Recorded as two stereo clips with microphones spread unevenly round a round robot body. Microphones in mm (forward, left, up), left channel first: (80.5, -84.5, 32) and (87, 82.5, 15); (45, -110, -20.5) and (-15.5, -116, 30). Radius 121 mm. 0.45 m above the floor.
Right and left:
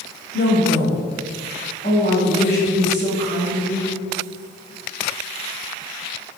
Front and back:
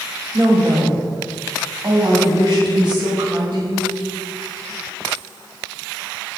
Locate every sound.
0.3 s a woman speaking: 120° right, 2.5 m; by 3.9 s 170° right, 5 m